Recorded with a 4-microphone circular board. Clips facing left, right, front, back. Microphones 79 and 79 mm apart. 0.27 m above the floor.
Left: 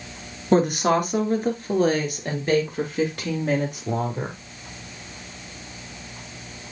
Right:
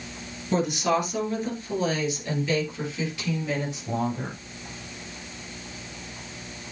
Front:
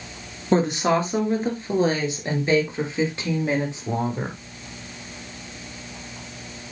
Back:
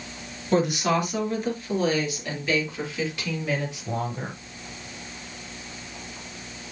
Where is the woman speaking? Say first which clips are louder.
Left 5 dB, front 3 dB; 55° left, 3.5 m.